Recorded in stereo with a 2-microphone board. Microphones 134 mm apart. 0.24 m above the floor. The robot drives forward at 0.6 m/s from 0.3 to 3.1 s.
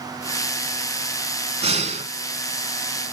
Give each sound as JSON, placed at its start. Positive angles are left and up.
{"t": 1.6, "sound": "breathing", "side_deg": -55, "distance_m": 0.9}